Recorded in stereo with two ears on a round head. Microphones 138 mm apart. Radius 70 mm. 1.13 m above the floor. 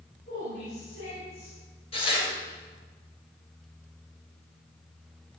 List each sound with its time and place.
0.3 s a woman speaking: 60° left (ahead or behind), 5.5 m
1.9 s tearing paper: 40° left (ahead or behind), 4.5 m